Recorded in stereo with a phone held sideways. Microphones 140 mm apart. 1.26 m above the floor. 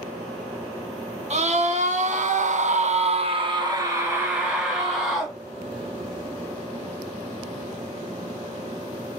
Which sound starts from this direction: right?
A scream, at 1.3 s.